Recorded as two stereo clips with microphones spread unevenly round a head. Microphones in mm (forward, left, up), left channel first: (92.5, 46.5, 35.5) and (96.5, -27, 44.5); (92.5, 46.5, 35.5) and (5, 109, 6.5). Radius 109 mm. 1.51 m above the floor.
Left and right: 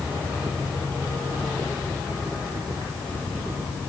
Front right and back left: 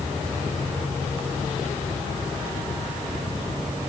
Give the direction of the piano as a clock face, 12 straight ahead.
I don't hear a piano.